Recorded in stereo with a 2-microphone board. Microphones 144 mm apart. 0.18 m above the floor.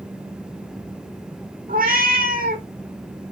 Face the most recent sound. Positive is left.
turn(degrees=-80)